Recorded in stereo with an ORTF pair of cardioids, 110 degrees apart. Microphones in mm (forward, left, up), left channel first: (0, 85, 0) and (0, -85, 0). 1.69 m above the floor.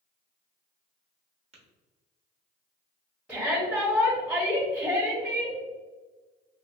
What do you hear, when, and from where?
1.5 s tapping: 35° right, 1.1 m
3.3 s a shout: 5° right, 1.1 m